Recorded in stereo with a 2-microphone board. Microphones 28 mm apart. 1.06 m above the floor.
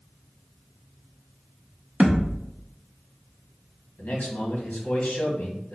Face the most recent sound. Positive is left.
turn(degrees=70)  # may be behind; listen again after turning